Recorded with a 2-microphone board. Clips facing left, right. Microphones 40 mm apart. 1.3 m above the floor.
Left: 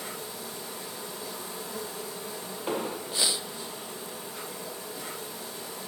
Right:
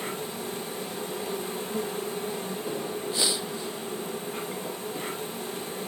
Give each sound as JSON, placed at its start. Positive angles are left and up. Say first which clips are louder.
{"t": 0.0, "sound": "an insect", "louder": "right 5 dB", "side_deg": -50, "distance_m": 6.0}
{"t": 2.7, "sound": "an explosion", "louder": "left 3 dB", "side_deg": 60, "distance_m": 1.3}